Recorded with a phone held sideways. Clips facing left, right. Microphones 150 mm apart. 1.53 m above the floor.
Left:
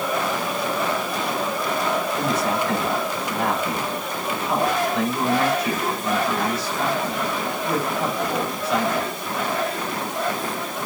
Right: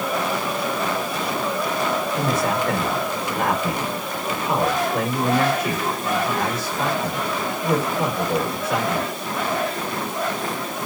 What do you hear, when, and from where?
2.1 s a man speaking: 50° right (ahead or behind), 6.5 m